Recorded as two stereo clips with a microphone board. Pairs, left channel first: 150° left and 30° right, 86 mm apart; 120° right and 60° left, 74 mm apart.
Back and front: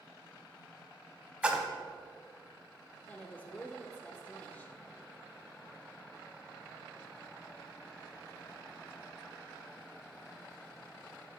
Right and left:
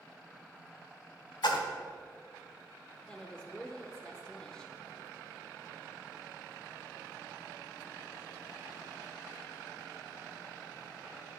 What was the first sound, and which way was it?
A splash, 105° right.